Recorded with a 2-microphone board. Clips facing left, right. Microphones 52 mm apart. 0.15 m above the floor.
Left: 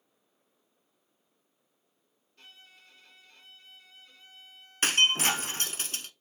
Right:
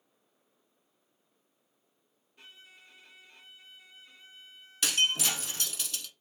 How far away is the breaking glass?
About 0.8 m.